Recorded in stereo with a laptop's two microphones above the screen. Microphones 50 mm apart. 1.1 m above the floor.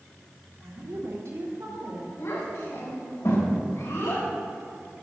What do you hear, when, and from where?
0.6 s a woman speaking: 65° right (ahead or behind), 3.5 m
2.2 s a child speaking: 85° left, 4 m